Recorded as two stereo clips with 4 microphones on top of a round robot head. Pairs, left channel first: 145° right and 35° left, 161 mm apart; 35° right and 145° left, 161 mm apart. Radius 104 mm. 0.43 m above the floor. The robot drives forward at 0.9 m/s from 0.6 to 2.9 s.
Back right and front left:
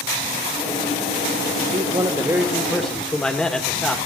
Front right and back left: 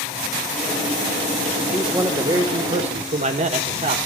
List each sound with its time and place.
1.7 s a man speaking: 55° left, 1.3 m; by 4.0 s 130° left, 1.3 m